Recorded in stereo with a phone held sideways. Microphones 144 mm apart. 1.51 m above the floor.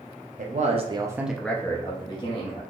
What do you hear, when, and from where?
0.4 s a man speaking: 65° right (ahead or behind), 0.6 m; by 2.6 s 40° left (ahead or behind), 1.1 m